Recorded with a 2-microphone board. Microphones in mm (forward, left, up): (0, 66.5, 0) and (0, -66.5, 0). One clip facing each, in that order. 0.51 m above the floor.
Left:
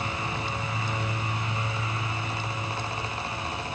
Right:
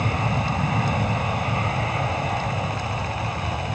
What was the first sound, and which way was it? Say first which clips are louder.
An aircraft: right 7 dB; 60° right (ahead or behind).